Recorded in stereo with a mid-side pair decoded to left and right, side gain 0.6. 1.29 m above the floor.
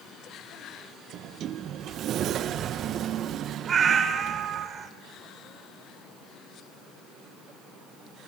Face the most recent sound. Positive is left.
turn(degrees=-40)